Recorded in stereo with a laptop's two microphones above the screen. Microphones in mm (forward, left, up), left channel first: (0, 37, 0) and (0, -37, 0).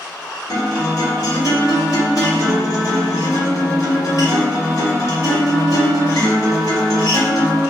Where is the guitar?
50° left (ahead or behind), 1.2 m.